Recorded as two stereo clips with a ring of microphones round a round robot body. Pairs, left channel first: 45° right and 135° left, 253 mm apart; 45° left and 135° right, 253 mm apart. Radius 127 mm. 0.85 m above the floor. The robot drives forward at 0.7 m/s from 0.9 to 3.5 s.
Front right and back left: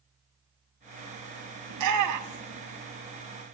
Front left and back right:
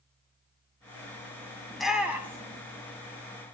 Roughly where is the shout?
Behind left.